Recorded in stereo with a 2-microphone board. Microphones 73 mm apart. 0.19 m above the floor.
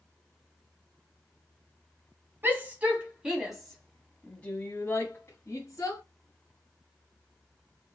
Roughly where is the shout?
Right.